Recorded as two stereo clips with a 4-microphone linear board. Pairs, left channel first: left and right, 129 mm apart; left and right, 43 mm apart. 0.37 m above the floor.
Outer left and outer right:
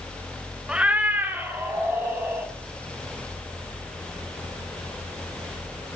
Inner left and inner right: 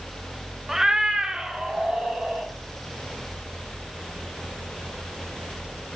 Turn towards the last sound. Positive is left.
turn(degrees=-20)  # may be behind; listen again after turning